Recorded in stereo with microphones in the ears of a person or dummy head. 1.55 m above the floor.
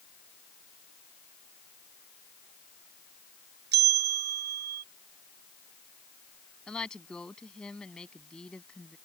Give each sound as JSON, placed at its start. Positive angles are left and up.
{"t": 3.7, "sound": "a bell", "side_deg": -55}
{"t": 6.7, "sound": "a woman speaking", "side_deg": 5}